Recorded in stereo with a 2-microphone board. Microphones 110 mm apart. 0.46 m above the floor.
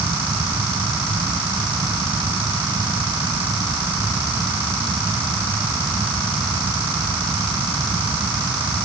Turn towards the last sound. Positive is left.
No sound to turn to.